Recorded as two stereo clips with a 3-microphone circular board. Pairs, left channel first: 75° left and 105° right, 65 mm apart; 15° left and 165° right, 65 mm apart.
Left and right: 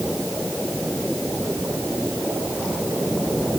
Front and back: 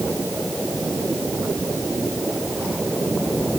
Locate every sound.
Only background noise.